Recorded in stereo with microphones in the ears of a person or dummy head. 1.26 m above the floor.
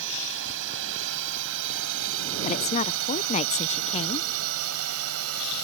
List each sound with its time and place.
0.0 s a drone: 65° right (ahead or behind); by 5.6 s 80° right
2.4 s a woman speaking: 35° left (ahead or behind)